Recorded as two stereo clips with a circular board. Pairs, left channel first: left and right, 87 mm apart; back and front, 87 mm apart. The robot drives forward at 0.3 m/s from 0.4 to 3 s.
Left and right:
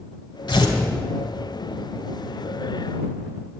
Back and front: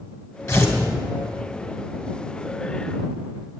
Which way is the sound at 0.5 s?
120° left.